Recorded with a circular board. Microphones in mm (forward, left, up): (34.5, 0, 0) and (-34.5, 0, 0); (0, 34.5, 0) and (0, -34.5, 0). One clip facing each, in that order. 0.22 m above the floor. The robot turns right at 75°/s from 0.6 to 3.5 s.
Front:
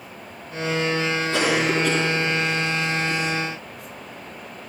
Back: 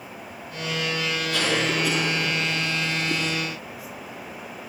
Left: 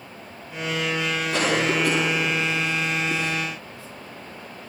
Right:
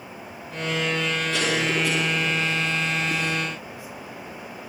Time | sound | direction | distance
1.3 | a cough | 55° left | 2 m